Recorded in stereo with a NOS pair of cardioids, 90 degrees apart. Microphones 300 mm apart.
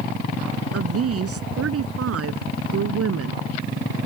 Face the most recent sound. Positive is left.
turn(degrees=-55)